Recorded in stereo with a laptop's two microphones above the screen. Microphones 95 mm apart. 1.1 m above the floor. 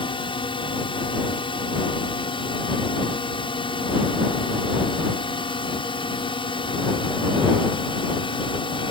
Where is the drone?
70° left (ahead or behind).